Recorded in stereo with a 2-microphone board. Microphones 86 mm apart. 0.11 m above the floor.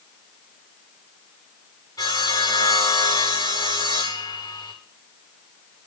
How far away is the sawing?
About 8.5 m.